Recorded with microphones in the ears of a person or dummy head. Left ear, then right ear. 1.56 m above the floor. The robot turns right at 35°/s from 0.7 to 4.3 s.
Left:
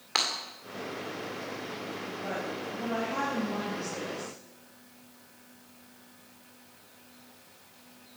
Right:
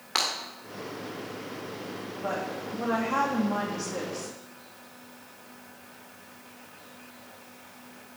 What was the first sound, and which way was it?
Breaking glass, 10° left (ahead or behind).